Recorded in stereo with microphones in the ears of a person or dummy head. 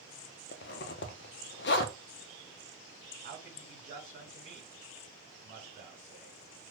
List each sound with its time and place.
0.5 s a zipper: 50° left (ahead or behind), 0.5 m
3.2 s a man speaking: 40° right (ahead or behind), 1.8 m